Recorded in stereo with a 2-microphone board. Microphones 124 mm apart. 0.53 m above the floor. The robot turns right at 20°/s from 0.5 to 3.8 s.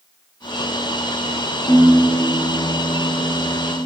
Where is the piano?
45° left, 0.9 m; by 3.8 s 90° left, 0.9 m.